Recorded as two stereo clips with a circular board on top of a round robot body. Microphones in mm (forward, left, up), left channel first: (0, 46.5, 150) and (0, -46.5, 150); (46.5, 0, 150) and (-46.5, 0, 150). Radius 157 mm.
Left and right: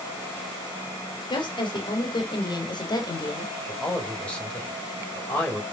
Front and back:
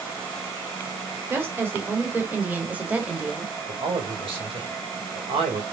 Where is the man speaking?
165° left, 3 m.